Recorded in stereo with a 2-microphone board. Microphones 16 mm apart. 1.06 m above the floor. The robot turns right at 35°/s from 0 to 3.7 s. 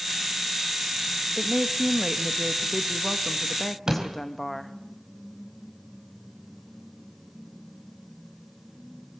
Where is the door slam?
30° right (ahead or behind), 5 m.